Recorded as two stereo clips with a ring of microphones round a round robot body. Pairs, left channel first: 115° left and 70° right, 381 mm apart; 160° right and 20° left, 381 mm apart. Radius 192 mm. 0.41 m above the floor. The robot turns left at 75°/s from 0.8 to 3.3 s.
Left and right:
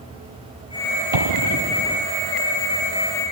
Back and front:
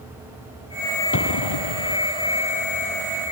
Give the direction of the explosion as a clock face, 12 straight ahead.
3 o'clock.